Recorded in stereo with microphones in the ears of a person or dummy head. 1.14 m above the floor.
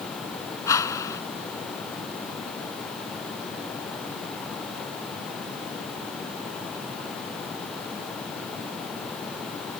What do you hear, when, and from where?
0.7 s a whoosh: 15° left (ahead or behind)